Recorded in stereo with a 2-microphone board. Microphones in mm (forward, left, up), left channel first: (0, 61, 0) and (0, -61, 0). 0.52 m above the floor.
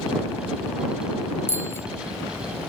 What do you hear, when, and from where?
1.5 s a bicycle bell: 25° left (ahead or behind)